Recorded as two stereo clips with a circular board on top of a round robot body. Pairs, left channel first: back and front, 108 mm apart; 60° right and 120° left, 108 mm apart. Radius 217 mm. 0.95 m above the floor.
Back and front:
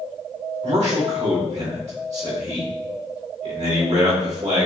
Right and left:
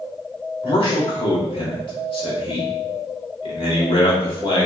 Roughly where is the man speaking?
Ahead.